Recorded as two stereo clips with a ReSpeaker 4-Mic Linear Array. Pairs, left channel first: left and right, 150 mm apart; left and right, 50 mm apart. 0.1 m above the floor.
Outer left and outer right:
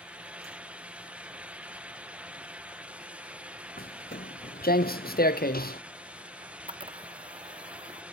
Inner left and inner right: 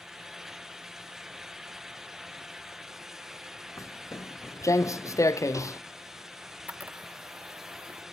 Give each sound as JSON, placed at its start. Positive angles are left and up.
{"t": 3.8, "sound": "footsteps", "side_deg": 90}
{"t": 6.4, "sound": "a camera shutter", "side_deg": -35}